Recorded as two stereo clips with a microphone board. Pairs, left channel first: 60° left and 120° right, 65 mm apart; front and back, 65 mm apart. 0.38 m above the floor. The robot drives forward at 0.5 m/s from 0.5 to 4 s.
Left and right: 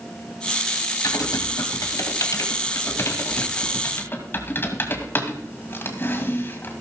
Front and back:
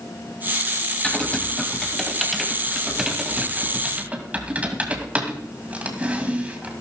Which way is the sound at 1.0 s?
70° left.